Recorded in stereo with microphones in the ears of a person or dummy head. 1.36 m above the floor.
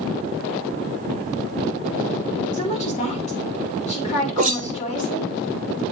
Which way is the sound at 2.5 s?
40° left (ahead or behind).